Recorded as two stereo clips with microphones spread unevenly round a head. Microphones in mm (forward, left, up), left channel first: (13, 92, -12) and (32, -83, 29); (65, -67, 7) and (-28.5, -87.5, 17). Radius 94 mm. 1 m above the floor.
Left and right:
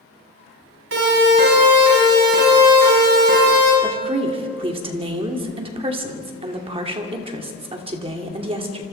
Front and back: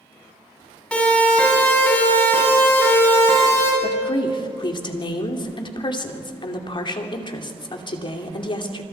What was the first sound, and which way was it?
A siren, 65° right.